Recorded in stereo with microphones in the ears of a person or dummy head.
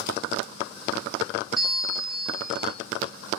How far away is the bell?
About 4 m.